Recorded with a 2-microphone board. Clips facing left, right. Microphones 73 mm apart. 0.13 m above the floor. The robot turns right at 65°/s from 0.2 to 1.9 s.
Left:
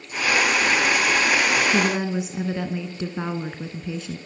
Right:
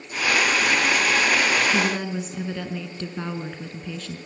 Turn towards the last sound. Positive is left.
turn(degrees=15)  # may be behind; listen again after turning